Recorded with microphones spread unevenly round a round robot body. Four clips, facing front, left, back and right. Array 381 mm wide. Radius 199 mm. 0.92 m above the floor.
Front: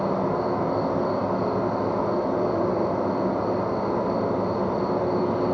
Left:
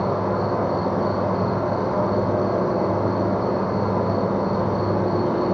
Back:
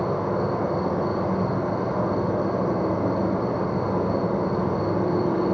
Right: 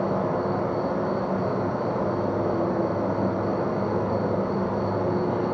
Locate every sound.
0.0 s an insect: 115° left, 5.5 m